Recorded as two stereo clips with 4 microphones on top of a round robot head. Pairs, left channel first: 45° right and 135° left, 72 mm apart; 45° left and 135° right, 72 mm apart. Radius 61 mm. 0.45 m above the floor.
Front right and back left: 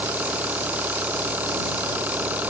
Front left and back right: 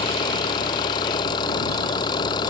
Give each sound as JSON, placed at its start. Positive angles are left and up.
{"t": 0.0, "sound": "an engine running", "azimuth_deg": 65}